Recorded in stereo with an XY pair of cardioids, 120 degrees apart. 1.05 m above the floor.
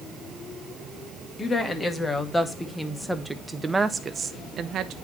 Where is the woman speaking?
20° left, 1.9 m; by 5.0 s 75° right, 0.9 m.